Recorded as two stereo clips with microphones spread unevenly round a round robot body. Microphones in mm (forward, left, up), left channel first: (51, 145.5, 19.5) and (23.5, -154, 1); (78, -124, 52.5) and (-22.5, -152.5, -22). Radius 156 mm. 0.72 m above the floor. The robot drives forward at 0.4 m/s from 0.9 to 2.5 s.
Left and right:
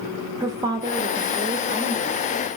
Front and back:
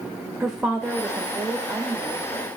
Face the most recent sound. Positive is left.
turn(degrees=-170)